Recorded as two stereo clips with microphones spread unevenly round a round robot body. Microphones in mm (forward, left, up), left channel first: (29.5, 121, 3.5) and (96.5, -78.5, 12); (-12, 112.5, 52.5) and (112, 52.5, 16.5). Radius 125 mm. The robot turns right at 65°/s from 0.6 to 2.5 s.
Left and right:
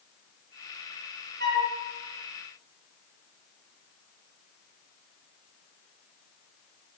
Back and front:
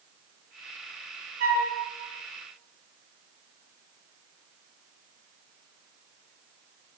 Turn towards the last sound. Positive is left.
turn(degrees=35)